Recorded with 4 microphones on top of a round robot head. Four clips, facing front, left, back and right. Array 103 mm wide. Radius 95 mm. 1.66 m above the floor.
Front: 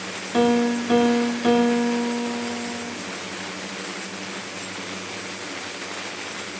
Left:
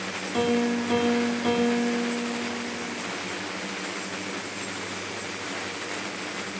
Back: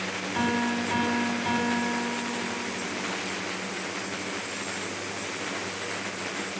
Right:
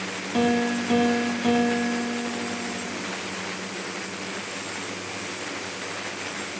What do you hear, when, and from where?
0.3 s a piano: 15° right, 2 m